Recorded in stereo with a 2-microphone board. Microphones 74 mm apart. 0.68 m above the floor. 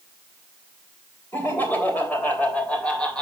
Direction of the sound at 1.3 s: 30° left (ahead or behind).